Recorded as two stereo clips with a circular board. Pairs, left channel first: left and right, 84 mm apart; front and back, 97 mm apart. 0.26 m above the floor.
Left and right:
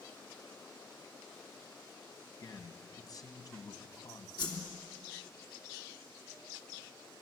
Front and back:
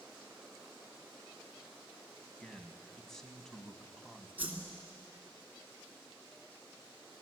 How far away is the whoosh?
About 3 m.